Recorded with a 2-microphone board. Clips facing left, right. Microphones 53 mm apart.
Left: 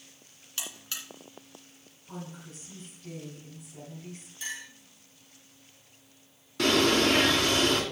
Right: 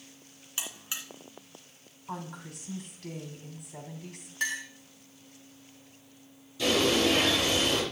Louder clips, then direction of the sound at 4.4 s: Right 7 dB; 70° right (ahead or behind).